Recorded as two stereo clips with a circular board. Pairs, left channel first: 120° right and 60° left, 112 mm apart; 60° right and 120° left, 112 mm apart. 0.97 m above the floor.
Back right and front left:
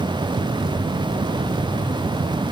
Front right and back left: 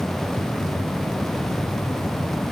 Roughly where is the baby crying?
I don't hear a baby crying.